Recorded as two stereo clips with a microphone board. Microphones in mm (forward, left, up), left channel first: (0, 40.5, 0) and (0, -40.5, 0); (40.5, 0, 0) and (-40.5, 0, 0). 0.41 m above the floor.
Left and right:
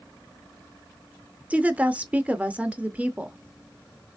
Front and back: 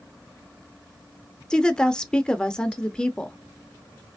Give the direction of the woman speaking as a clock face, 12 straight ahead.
2 o'clock.